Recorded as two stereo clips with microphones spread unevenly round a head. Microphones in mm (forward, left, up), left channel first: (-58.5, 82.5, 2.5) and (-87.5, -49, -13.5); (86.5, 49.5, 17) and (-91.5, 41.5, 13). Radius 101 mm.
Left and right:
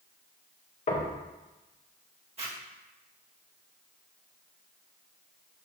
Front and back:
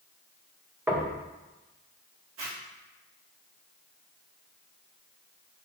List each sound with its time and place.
0.9 s knocking: 105° left, 1.7 m
2.4 s a zipper: 145° right, 2.5 m